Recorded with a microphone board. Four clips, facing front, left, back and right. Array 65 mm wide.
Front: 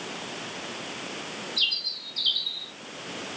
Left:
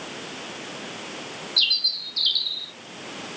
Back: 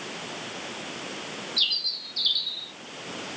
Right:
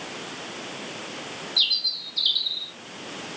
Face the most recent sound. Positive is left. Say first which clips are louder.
# left 5 dB, front 1 dB
turn(degrees=85)